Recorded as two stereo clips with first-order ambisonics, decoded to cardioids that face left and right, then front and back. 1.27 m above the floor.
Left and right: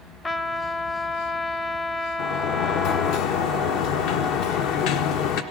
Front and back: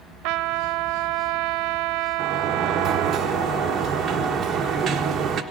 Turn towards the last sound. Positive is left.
turn(degrees=115)